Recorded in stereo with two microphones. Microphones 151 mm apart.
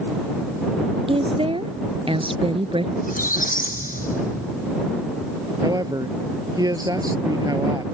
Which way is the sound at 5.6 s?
25° right (ahead or behind).